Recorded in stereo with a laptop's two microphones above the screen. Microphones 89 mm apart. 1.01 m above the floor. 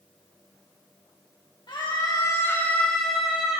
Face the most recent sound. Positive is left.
turn(degrees=-10)  # may be behind; listen again after turning